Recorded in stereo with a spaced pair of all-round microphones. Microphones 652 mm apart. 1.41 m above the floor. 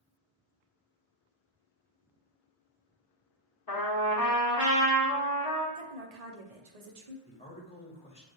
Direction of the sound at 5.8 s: 70° right (ahead or behind).